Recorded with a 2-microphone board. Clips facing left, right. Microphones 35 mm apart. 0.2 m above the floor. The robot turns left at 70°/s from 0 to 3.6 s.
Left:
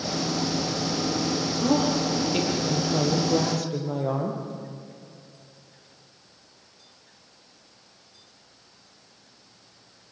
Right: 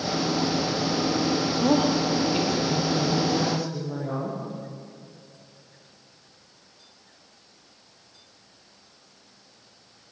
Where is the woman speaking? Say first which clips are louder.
Right 1 dB; 140° right, 6 m; by 4.4 s 80° left, 6 m.